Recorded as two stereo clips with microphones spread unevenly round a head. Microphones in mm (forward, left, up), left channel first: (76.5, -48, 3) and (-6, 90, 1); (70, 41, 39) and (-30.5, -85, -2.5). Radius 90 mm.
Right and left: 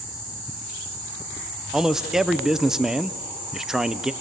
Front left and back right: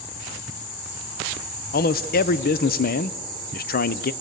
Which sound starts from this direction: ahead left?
A man speaking, at 1.7 s.